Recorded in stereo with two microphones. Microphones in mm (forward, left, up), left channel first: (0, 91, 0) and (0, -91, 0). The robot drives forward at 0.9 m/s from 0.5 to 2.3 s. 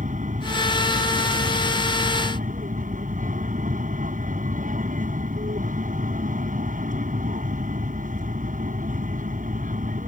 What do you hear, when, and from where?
0.0 s an aircraft: 45° right (ahead or behind)